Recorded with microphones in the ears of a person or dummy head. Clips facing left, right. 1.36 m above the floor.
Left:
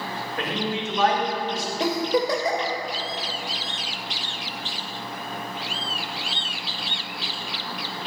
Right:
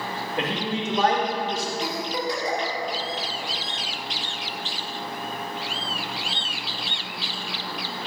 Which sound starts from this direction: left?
A giggle, at 1.8 s.